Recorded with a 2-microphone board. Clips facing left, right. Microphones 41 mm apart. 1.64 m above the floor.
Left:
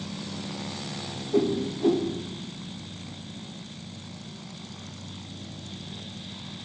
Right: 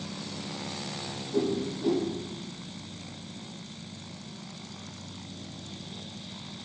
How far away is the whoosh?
About 0.5 m.